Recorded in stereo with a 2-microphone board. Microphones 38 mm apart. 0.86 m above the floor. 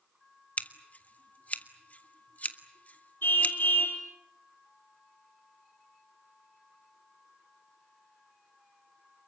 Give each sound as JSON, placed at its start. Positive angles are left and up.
{"t": 0.6, "sound": "scissors", "side_deg": 45, "distance_m": 1.4}
{"t": 3.2, "sound": "a car horn", "side_deg": 80, "distance_m": 4.5}